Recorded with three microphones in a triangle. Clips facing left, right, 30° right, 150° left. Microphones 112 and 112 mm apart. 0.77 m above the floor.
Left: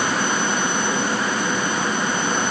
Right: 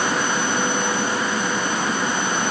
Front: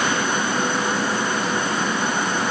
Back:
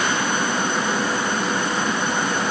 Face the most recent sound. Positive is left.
No sound to turn to.